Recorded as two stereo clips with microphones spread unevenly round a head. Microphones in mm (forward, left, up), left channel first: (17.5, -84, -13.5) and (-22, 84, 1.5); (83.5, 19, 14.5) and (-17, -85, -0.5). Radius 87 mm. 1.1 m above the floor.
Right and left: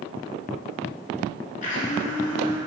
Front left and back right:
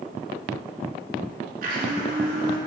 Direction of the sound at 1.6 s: 120° right.